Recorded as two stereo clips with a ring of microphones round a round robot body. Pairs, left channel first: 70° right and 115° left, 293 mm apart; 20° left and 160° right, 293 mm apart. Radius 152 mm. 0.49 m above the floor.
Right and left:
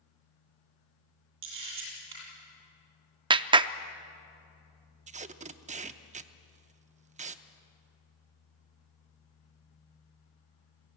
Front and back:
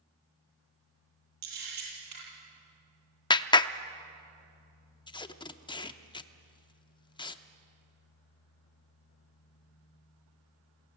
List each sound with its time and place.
1.4 s a camera shutter: 165° left, 8 m
3.3 s a clap: 70° left, 0.5 m
5.1 s tape being pulled: 80° left, 0.7 m